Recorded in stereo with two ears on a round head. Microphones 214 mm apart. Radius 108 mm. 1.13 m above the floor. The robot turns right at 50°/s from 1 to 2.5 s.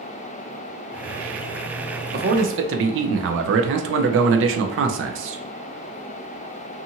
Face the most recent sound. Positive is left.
turn(degrees=-55)  # may be behind; listen again after turning